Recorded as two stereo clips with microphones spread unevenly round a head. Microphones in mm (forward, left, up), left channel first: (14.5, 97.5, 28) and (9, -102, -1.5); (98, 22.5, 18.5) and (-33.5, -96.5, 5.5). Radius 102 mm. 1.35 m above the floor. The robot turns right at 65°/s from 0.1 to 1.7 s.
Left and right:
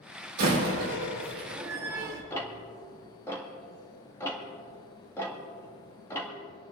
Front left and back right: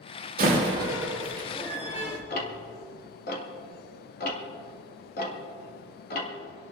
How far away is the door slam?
About 3.5 m.